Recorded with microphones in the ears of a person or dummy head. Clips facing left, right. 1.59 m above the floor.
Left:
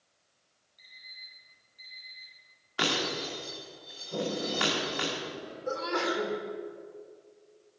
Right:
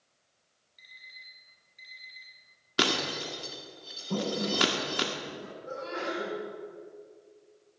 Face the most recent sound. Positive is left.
turn(degrees=80)